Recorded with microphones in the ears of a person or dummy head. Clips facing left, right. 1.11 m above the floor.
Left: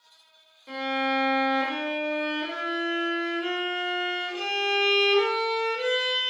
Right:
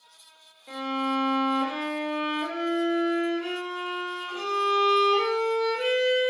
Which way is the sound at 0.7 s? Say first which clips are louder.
Left 1 dB; 25° left (ahead or behind).